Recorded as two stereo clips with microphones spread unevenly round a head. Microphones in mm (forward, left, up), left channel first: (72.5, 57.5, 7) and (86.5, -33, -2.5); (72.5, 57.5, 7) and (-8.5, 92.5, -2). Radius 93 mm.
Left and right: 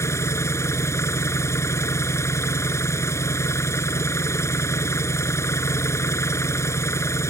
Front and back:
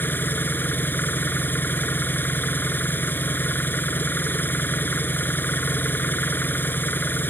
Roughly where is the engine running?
Ahead left.